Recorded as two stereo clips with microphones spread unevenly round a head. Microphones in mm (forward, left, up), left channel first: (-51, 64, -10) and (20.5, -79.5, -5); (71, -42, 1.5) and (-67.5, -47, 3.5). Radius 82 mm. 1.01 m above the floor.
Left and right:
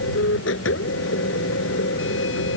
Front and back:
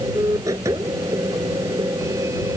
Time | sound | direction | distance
0.0 | a machine running | 110° left | ?